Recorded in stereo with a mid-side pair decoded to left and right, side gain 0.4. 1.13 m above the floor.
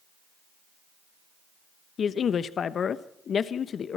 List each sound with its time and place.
2.0 s a man speaking: 55° left, 1.0 m